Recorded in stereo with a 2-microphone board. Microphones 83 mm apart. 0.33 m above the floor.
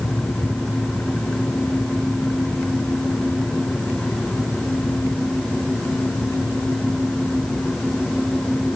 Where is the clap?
No clap in this recording.